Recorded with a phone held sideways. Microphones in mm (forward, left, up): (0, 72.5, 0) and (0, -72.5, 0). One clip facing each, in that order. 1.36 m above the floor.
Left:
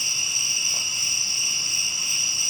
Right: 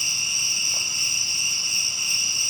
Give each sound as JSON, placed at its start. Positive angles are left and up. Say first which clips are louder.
{"t": 0.0, "sound": "an insect", "louder": "even", "side_deg": 65, "distance_m": 5.0}